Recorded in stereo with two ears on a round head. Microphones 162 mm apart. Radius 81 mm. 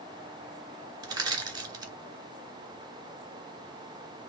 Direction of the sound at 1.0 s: 25° right (ahead or behind).